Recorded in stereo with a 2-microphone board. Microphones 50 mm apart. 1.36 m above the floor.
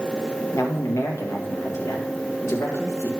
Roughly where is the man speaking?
Left.